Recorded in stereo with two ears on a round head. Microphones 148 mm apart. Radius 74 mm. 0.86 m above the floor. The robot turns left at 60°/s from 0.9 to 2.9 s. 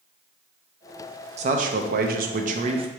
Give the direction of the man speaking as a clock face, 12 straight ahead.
2 o'clock.